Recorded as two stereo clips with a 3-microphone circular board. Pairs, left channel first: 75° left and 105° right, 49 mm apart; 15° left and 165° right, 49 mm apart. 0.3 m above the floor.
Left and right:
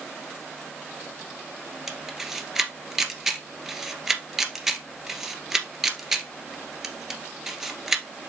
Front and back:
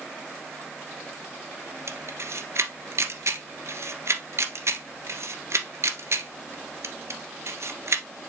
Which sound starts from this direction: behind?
A camera shutter, at 1.9 s.